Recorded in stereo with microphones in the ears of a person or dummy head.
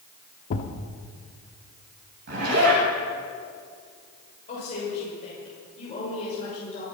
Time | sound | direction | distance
0.5 | a thud | 35° left (ahead or behind) | 1.0 m
2.3 | a zipper | 55° right (ahead or behind) | 8.5 m
4.5 | a woman speaking | 45° left (ahead or behind) | 6 m